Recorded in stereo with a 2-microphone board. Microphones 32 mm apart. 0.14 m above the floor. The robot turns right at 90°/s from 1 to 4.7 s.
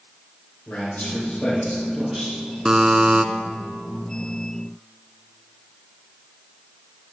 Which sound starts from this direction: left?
A man speaking, at 0.7 s.